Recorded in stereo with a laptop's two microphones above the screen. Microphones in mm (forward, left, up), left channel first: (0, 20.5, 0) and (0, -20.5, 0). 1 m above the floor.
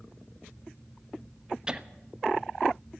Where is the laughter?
20° right (ahead or behind), 1.1 m.